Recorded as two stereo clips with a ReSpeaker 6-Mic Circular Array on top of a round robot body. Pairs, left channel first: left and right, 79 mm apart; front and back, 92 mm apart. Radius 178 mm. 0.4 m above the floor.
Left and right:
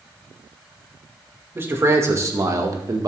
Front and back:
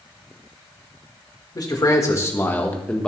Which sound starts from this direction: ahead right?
A man speaking, at 1.6 s.